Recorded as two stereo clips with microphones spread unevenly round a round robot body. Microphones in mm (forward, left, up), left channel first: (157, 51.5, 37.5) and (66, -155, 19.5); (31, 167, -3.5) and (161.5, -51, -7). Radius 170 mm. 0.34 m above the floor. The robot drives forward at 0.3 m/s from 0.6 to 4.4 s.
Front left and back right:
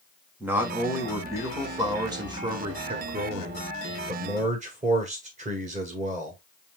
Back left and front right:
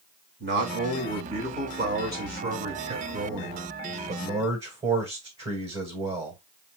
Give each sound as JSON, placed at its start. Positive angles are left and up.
{"t": 0.4, "sound": "a man speaking", "azimuth_deg": -40, "distance_m": 1.6}